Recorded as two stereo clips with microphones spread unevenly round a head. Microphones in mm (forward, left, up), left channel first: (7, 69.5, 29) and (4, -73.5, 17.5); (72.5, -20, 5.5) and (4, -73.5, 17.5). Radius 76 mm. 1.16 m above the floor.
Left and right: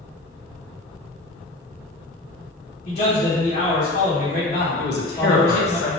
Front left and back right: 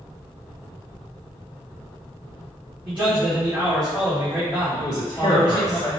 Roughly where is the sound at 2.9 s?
Behind left.